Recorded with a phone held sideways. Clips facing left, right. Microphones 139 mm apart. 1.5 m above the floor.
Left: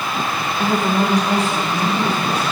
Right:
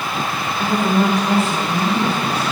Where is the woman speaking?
15° left (ahead or behind), 0.9 m; by 2.4 s 15° right (ahead or behind), 3 m.